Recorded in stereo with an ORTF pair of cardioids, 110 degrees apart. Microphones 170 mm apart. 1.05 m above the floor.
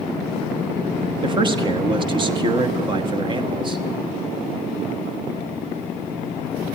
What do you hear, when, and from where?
1.2 s a man speaking: 30° right, 1.2 m